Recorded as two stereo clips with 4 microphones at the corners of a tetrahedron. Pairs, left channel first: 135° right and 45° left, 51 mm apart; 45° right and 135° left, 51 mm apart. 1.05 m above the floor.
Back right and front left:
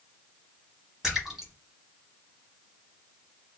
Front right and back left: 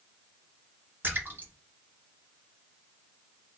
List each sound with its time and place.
1.0 s a splash: 120° left, 1.2 m